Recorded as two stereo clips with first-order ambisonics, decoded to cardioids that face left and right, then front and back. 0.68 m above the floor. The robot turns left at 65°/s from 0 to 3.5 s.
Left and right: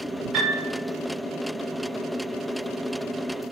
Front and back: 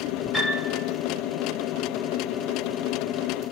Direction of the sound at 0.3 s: 95° right.